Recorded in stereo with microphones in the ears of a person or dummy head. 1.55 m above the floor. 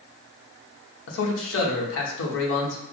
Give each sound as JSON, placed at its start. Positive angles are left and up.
{"t": 1.1, "sound": "a man speaking", "side_deg": 85, "distance_m": 1.2}